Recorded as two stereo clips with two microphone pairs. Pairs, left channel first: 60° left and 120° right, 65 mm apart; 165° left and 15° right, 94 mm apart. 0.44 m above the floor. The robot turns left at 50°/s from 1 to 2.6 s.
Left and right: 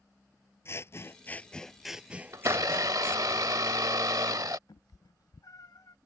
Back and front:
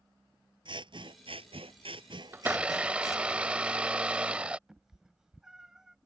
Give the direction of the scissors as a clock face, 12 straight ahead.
12 o'clock.